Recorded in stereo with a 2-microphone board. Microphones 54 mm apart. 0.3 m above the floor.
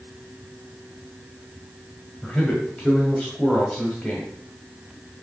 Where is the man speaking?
20° left (ahead or behind), 1.5 m.